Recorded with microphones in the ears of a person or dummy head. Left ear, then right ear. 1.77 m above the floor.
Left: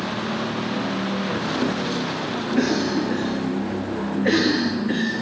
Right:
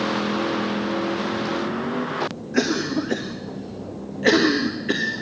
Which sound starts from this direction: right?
A cough, at 2.5 s.